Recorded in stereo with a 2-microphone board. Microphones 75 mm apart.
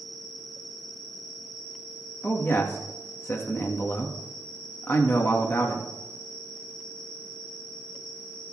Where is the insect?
75° left (ahead or behind), 3.5 m.